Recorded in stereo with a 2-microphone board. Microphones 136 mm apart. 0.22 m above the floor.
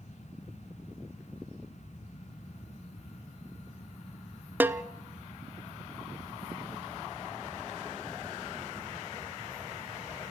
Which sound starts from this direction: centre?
A snare drum, at 4.6 s.